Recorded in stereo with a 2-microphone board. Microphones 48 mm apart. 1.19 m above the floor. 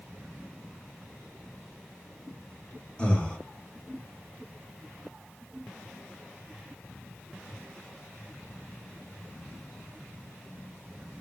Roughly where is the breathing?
Left.